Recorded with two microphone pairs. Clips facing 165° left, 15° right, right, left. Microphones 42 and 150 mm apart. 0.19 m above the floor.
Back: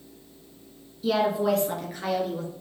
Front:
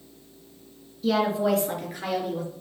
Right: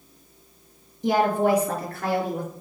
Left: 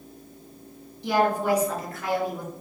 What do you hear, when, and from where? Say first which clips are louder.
1.0 s a woman speaking: even, right 2 dB; 115° right, 2.5 m; by 2.5 s 95° right, 4 m